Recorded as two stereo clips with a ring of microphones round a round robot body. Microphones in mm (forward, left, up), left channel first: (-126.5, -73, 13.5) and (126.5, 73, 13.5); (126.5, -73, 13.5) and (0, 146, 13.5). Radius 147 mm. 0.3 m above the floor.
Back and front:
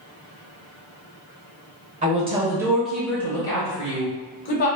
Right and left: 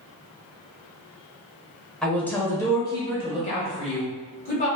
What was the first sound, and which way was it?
A woman speaking, 20° left.